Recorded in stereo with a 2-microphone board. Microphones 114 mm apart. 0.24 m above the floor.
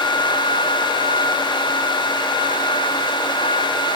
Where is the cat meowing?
No cat meowing in this recording.